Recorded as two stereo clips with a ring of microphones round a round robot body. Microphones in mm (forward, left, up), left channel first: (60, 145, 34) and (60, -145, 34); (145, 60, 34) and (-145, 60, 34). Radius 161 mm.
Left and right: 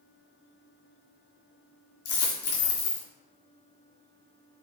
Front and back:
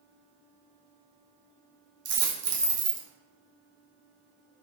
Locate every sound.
2.0 s a dropped coin: 135° left, 1.1 m